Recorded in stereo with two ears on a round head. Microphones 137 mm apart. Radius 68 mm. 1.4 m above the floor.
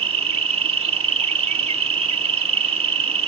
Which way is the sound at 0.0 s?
40° right (ahead or behind).